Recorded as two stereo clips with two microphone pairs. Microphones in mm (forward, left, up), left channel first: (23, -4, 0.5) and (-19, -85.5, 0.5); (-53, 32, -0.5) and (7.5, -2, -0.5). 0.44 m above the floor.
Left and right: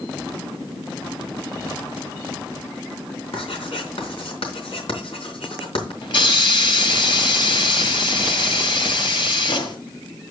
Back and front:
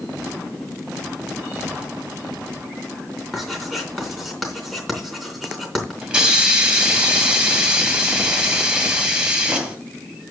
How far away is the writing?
About 3.5 m.